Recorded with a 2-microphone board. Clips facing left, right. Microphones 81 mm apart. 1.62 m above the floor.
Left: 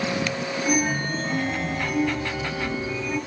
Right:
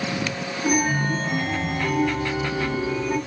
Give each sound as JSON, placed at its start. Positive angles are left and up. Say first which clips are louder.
{"t": 0.6, "sound": "a chime", "louder": "right 3 dB", "side_deg": -15, "distance_m": 4.0}